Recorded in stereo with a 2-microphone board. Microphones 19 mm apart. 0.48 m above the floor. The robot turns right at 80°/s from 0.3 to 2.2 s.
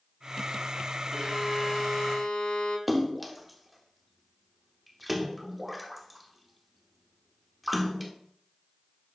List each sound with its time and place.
1.1 s a violin: 25° right, 4 m; by 2.8 s 60° left, 4 m
2.9 s a splash: 5° right (ahead or behind), 0.9 m